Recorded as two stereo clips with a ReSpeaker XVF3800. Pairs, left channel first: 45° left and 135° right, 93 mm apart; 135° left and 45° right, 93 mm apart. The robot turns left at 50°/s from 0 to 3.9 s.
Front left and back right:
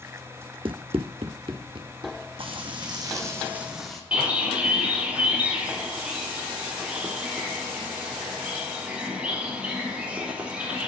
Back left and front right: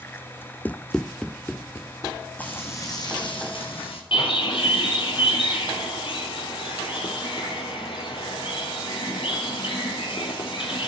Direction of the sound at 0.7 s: 155° right.